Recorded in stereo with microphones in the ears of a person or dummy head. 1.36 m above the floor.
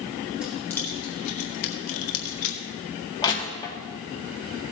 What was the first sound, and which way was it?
Keys jangling, 5° right (ahead or behind).